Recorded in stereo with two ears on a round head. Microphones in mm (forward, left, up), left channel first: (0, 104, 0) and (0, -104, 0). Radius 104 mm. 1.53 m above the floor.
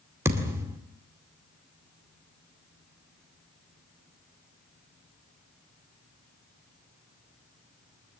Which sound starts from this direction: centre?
A thud, at 0.2 s.